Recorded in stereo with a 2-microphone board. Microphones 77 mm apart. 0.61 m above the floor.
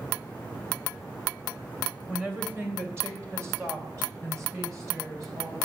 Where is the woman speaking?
20° right (ahead or behind), 2.0 m; by 5.7 s 40° right (ahead or behind), 4.5 m.